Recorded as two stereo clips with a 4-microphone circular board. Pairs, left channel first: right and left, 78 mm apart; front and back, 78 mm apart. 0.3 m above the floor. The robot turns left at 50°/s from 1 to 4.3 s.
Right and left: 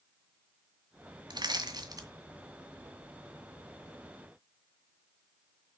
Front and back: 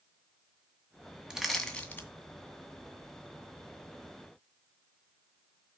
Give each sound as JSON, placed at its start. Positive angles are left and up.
{"t": 1.3, "sound": "crushing", "azimuth_deg": 100, "distance_m": 2.0}